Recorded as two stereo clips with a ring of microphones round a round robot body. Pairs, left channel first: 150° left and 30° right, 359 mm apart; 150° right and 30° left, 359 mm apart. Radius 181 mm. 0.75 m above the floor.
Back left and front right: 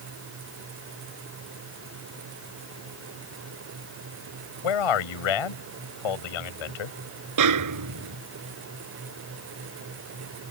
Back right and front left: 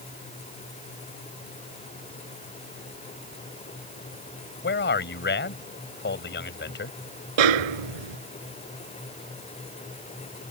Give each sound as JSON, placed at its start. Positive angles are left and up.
{"t": 4.6, "sound": "a man speaking", "azimuth_deg": 145}
{"t": 7.4, "sound": "a snare drum", "azimuth_deg": 15}